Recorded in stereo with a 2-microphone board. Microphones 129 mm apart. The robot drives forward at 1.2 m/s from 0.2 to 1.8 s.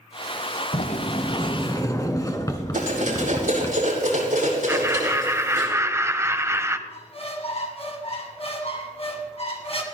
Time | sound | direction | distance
0.7 | a sliding door | 60° left (ahead or behind) | 0.8 m
2.7 | cutlery clinking | 80° right | 5.5 m
4.7 | laughter | 20° right (ahead or behind) | 1.1 m
6.9 | a squeak | 45° left (ahead or behind) | 1.8 m